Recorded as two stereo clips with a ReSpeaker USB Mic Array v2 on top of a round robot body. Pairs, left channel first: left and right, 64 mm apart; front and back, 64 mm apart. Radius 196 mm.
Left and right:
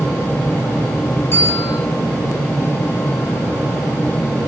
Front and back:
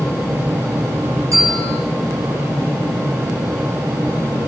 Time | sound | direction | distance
1.3 | a bell | 140° left | 8 m